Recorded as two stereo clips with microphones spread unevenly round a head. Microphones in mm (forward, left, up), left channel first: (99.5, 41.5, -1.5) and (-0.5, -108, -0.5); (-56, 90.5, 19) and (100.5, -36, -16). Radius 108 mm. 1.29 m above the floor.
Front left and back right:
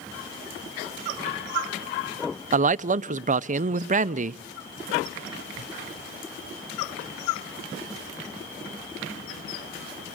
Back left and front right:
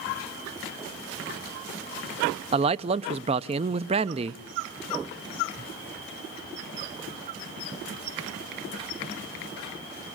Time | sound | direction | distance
2.5 | a man speaking | 90° right | 0.6 m